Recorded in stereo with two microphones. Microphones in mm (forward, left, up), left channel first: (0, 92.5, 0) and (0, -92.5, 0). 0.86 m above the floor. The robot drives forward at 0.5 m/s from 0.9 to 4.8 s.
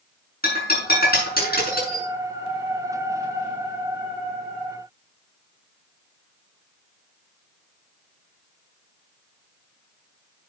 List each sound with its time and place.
0.4 s breaking glass: 55° left (ahead or behind), 6.5 m; by 2.0 s 50° left (ahead or behind), 7 m